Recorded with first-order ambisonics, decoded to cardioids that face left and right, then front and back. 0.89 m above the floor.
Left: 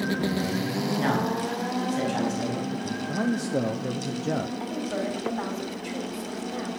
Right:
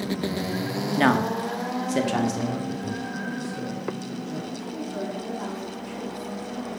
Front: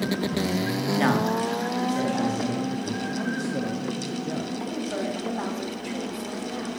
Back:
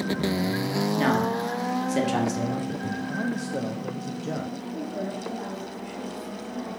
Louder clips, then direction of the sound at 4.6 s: Left 2 dB, front 3 dB; 50° left.